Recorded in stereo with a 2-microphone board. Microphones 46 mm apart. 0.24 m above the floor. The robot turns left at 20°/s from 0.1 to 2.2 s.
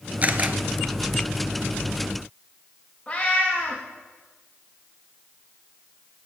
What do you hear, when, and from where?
0.2 s a camera shutter: 35° right (ahead or behind), 1.3 m; by 0.6 s 40° right (ahead or behind), 1.3 m
3.1 s a cat meowing: 20° left (ahead or behind), 4.5 m